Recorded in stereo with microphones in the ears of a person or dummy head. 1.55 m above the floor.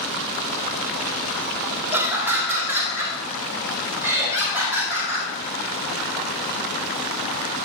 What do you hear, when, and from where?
1.9 s laughter: 10° right (ahead or behind), 1.7 m